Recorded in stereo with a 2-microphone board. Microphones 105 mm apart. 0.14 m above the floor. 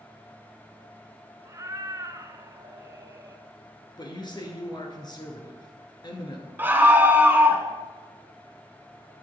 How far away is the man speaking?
About 1.9 m.